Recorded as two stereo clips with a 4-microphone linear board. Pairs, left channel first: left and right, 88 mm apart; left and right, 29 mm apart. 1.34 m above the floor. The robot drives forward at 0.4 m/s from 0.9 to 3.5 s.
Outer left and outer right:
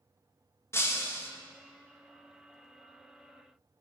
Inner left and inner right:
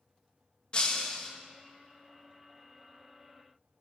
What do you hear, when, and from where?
0.7 s breaking glass: 30° left (ahead or behind), 0.9 m; by 1.3 s 25° left (ahead or behind), 1.0 m